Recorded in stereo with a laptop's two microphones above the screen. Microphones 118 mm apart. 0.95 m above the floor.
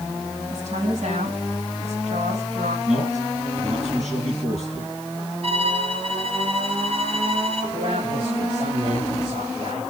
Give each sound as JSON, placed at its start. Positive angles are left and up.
{"t": 0.5, "sound": "a woman speaking", "side_deg": -80, "distance_m": 5.0}
{"t": 2.9, "sound": "a man speaking", "side_deg": -80, "distance_m": 8.5}
{"t": 5.4, "sound": "a violin", "side_deg": -60, "distance_m": 4.5}
{"t": 7.7, "sound": "a man speaking", "side_deg": -80, "distance_m": 5.0}